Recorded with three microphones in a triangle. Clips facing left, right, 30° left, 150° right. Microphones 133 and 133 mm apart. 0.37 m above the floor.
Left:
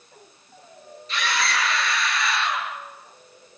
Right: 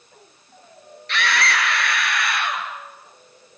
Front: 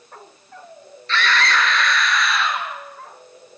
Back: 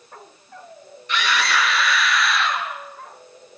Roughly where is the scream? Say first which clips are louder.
Right 3 dB, front 2 dB; right.